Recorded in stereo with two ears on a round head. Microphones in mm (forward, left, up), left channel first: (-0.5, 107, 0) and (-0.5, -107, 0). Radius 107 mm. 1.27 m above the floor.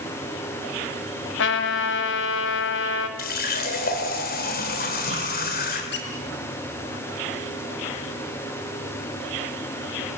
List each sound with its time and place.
1.4 s a trumpet: 55° left (ahead or behind), 2 m
3.2 s a running tap: 40° left (ahead or behind), 3.5 m
5.9 s a squeak: 50° left (ahead or behind), 4 m